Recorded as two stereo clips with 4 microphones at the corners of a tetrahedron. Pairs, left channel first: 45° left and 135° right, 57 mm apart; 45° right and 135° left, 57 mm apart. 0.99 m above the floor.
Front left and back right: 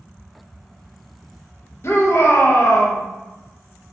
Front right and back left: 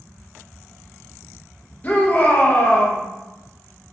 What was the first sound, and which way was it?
A shout, 10° left.